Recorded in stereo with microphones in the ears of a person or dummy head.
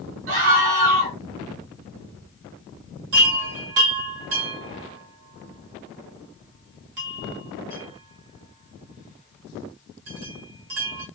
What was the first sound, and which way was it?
A scream, 75° right (ahead or behind).